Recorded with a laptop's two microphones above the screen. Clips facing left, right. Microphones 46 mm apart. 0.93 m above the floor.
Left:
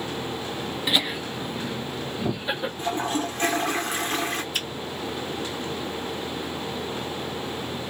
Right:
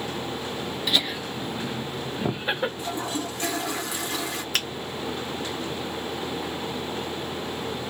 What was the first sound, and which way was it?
Laughter, 20° left (ahead or behind).